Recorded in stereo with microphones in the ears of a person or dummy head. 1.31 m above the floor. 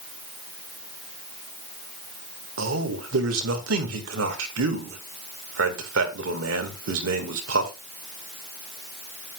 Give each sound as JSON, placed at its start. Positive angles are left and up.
{"t": 2.6, "sound": "a man speaking", "side_deg": -75, "distance_m": 1.6}